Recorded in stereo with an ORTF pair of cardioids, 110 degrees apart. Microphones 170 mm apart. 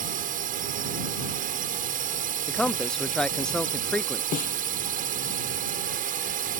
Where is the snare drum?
55° left.